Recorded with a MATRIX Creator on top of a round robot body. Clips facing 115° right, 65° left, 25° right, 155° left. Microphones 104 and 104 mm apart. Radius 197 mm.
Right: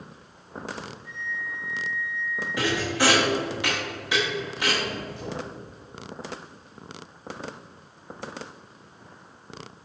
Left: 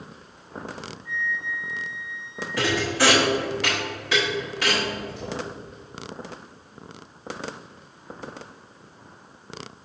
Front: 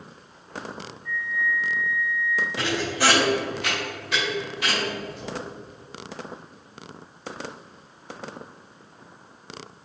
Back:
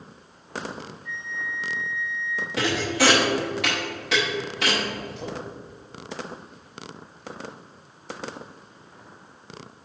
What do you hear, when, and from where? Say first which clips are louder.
1.1 s a flute: left 8 dB, front 8 dB; 130° right, 2.5 m
2.6 s a thud: left 2 dB, back 6 dB; 175° left, 0.6 m